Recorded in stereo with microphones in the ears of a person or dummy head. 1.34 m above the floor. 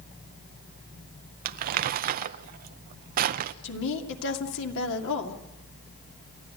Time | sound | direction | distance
1.4 | crumpling | 45° right (ahead or behind) | 0.6 m
3.6 | a woman speaking | 75° left (ahead or behind) | 2.5 m